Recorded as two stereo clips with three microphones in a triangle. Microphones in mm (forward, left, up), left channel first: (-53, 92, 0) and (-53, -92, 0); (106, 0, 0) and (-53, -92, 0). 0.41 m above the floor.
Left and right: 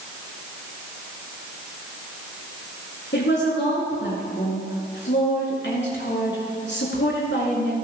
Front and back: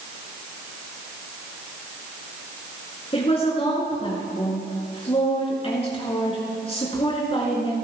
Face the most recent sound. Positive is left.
turn(degrees=85)